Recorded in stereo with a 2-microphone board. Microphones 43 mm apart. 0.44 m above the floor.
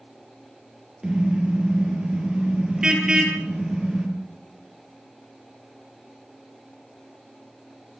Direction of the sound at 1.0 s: 20° right (ahead or behind).